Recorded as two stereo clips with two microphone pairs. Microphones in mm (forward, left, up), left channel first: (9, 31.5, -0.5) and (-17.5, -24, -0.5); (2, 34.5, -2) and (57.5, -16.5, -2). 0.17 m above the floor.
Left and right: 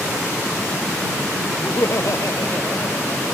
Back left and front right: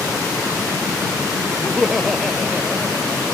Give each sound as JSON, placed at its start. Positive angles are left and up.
{"t": 1.6, "sound": "laughter", "azimuth_deg": 50}